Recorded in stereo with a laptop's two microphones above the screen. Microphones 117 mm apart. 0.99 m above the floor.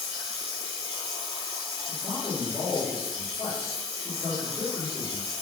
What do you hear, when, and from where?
0.0 s running water: 65° right (ahead or behind), 1.0 m
1.9 s a man speaking: 40° left (ahead or behind), 1.0 m